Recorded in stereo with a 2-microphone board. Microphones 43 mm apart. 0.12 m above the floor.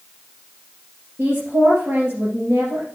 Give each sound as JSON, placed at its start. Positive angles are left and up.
{"t": 1.2, "sound": "a woman speaking", "side_deg": -60, "distance_m": 3.0}